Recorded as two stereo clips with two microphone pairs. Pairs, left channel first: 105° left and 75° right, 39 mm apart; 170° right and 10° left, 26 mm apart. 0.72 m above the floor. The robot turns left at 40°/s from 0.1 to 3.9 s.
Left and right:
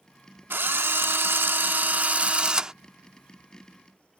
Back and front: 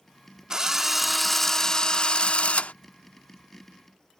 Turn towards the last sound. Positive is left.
turn(degrees=170)